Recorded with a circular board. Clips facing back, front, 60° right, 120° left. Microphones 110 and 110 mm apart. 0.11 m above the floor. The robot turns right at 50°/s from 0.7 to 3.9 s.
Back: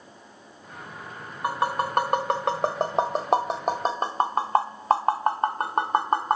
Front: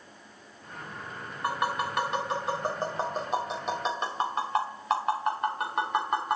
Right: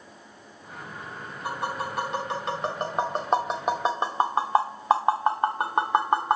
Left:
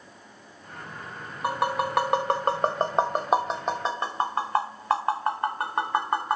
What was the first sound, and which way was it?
Tapping, 110° left.